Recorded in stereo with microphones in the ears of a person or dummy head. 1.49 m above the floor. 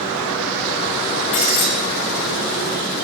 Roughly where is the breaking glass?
Left.